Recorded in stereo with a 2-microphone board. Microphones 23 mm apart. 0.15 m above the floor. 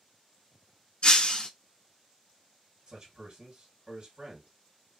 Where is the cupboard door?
No cupboard door in this recording.